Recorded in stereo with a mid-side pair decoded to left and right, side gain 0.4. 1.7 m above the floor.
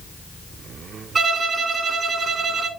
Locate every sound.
1.1 s a violin: 50° right, 2.5 m